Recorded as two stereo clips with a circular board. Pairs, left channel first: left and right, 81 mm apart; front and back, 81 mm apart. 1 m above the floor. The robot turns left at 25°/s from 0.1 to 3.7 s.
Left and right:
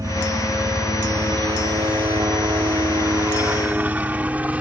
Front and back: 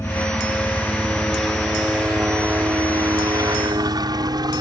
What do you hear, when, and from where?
0.0 s a helicopter: 50° right; by 4.6 s 160° right